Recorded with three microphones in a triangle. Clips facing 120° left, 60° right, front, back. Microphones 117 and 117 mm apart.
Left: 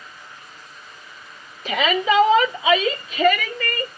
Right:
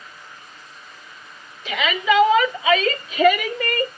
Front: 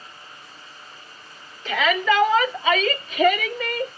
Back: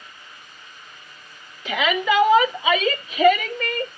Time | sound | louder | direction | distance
1.6 | a shout | left 1 dB, front 1 dB | 110° left | 1.5 m